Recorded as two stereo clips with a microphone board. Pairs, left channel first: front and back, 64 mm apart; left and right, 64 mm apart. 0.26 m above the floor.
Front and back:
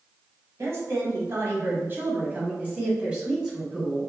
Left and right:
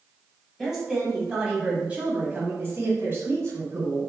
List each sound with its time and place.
0.6 s a woman speaking: 175° right, 1.8 m; by 4.1 s 95° right, 1.8 m